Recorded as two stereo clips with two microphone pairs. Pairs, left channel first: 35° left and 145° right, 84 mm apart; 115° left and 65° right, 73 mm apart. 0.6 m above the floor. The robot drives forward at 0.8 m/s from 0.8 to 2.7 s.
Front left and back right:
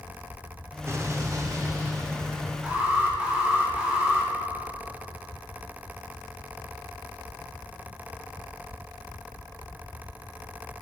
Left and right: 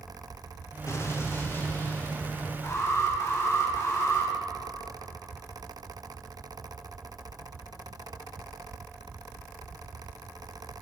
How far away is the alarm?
About 2.5 m.